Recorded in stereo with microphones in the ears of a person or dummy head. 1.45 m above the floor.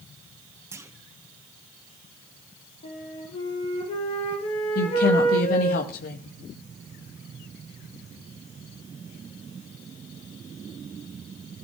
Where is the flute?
40° left (ahead or behind), 6.5 m.